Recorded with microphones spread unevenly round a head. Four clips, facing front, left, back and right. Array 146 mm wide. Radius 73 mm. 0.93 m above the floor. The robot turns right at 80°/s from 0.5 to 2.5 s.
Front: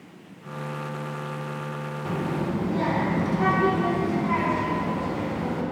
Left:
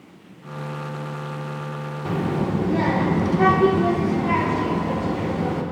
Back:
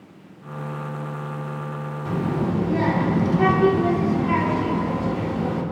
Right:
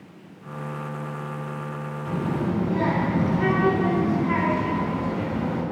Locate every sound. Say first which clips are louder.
2.0 s a child speaking: left 3 dB, back 4 dB; 75° left, 1.9 m; by 5.6 s 110° left, 1.9 m